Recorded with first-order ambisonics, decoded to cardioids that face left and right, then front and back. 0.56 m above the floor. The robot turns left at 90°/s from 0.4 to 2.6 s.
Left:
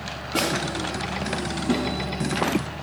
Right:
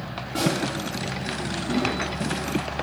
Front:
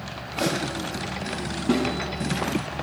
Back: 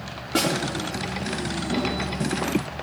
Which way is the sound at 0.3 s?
160° left.